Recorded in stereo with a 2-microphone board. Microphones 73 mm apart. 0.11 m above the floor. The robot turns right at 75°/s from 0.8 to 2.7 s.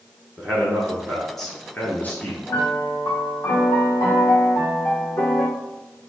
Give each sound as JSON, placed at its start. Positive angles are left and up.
{"t": 0.4, "sound": "a man speaking", "side_deg": -10, "distance_m": 1.4}
{"t": 2.5, "sound": "a piano", "side_deg": 70, "distance_m": 1.4}